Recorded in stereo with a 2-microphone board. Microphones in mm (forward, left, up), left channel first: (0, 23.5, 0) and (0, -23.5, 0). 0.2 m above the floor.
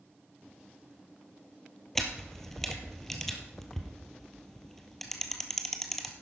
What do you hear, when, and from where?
1.9 s a camera shutter: 5° left (ahead or behind), 1.6 m